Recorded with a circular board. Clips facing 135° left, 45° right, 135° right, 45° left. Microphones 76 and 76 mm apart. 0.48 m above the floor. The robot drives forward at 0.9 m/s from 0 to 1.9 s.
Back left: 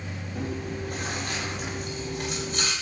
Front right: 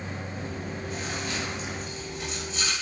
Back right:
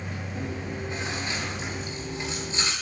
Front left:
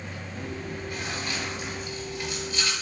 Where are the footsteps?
No footsteps in this recording.